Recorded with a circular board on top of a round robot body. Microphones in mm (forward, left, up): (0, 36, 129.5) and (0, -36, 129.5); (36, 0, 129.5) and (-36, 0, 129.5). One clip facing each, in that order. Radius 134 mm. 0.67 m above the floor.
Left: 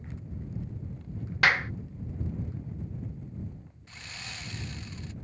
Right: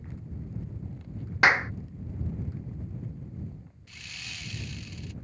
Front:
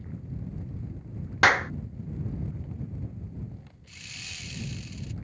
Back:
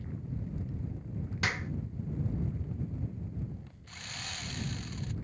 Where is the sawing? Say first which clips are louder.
Left 1 dB, back 2 dB; 145° left.